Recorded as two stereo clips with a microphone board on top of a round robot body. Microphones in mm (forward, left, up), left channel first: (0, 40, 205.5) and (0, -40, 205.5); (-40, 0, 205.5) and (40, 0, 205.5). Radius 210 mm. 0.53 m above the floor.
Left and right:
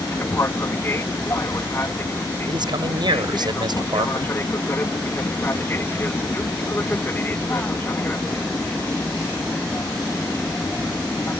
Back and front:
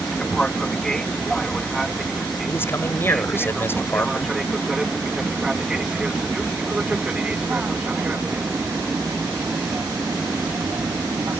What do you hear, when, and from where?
0.0 s an aircraft: 105° left; by 11.4 s 35° left
2.5 s a man speaking: 120° right